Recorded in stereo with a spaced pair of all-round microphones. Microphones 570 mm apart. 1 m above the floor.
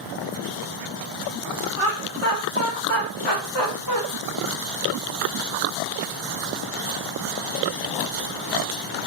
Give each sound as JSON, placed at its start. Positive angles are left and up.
{"t": 1.8, "sound": "laughter", "side_deg": 60, "distance_m": 1.3}